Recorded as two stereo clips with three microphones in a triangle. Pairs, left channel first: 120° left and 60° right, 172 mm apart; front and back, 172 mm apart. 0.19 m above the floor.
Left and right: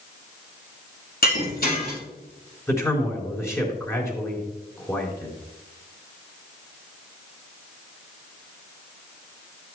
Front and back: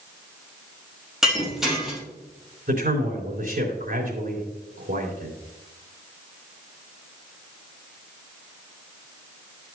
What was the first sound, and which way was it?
Breaking glass, 90° left.